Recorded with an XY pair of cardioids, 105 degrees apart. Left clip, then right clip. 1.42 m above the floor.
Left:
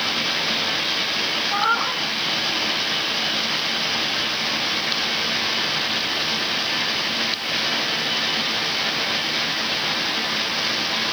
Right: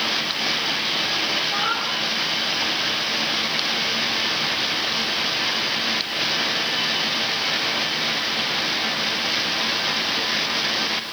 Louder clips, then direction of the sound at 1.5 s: Left 2 dB; 40° left.